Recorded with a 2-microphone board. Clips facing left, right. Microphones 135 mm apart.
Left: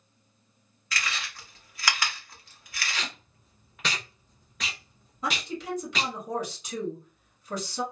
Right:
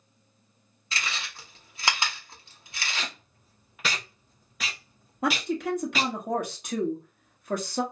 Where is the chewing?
25° right (ahead or behind), 0.8 m.